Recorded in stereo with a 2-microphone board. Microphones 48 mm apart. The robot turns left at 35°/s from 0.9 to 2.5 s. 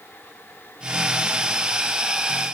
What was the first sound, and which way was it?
Only background noise.